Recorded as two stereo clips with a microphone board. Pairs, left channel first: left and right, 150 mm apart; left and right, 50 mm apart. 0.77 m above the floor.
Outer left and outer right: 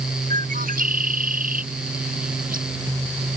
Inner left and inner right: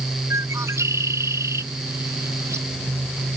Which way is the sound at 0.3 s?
70° right (ahead or behind).